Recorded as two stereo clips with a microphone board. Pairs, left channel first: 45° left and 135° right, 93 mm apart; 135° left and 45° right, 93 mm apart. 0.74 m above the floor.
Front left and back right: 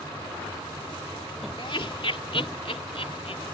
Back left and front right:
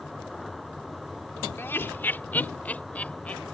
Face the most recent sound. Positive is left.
turn(degrees=60)